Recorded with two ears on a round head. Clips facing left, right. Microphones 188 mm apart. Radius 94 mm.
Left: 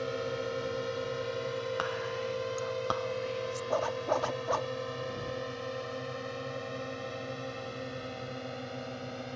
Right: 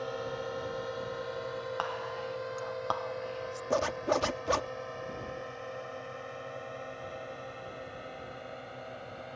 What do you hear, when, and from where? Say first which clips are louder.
0.0 s a drone: left 2 dB; 35° left (ahead or behind); by 9.4 s 60° left (ahead or behind)
1.8 s whispering: left 3 dB; 25° left (ahead or behind)
3.7 s a zipper: right 2 dB; 35° right (ahead or behind)